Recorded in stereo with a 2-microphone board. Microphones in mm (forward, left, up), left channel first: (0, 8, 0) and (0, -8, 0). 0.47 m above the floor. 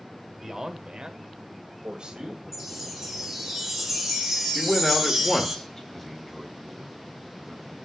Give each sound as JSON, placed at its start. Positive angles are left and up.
{"t": 0.4, "sound": "a man speaking", "side_deg": -35, "distance_m": 1.4}
{"t": 2.5, "sound": "a chime", "side_deg": -20, "distance_m": 3.0}
{"t": 4.5, "sound": "a man speaking", "side_deg": 25, "distance_m": 1.3}
{"t": 5.9, "sound": "a man speaking", "side_deg": 5, "distance_m": 2.5}